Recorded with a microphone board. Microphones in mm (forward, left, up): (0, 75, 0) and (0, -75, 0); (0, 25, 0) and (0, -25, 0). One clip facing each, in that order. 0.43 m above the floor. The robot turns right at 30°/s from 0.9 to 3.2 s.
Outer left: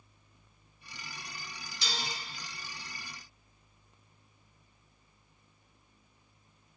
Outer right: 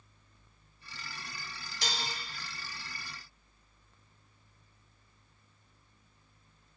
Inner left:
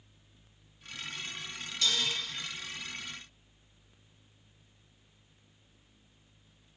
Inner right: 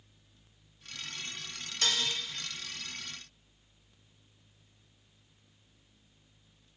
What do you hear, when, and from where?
1.8 s dishes clattering: 50° right (ahead or behind), 1.3 m; by 2.1 s 45° right (ahead or behind), 1.3 m